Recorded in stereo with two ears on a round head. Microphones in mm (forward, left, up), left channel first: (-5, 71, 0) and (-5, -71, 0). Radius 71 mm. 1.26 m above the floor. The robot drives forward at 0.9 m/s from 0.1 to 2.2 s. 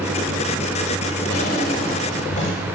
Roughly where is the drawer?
Left.